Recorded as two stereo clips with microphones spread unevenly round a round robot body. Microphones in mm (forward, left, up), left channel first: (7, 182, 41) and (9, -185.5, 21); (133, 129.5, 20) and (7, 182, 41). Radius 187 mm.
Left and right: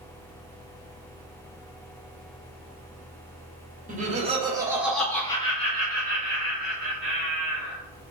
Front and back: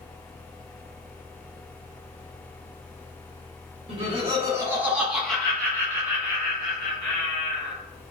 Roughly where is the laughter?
Behind right.